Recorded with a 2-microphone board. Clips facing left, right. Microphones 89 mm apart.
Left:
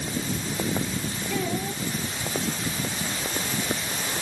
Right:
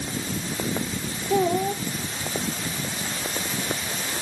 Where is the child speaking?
40° right (ahead or behind).